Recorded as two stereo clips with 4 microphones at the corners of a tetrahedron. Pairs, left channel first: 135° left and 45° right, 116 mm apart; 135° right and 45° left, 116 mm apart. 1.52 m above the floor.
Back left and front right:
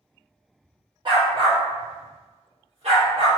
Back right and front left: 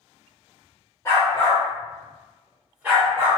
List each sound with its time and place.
1.1 s a dog barking: 80° right, 1.4 m; by 3.3 s 25° right, 1.9 m